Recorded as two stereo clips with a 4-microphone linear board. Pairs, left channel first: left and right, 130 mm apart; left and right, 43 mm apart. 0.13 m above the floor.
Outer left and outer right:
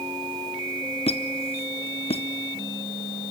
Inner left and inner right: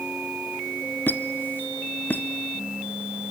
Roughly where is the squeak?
Left.